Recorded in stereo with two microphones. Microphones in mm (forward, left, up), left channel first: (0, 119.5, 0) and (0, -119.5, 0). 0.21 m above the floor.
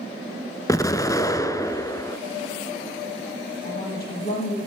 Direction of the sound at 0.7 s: 15° left (ahead or behind).